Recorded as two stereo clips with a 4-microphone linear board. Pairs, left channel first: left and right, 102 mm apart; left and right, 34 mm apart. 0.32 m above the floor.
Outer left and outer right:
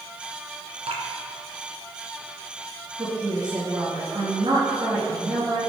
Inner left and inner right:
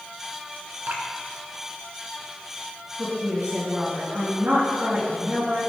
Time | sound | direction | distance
0.9 | dripping | 75° right (ahead or behind) | 2 m
3.0 | a woman speaking | 65° right (ahead or behind) | 4 m